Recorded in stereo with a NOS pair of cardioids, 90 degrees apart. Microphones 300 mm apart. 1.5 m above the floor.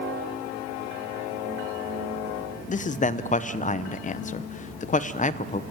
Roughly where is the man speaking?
Ahead left.